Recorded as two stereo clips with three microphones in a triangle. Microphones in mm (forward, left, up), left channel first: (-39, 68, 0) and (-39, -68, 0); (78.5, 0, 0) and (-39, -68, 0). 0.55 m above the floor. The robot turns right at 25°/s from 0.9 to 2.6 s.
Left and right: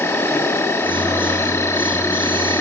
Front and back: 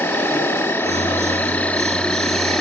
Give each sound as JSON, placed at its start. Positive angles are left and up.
{"t": 0.0, "sound": "an insect", "azimuth_deg": 65, "distance_m": 0.8}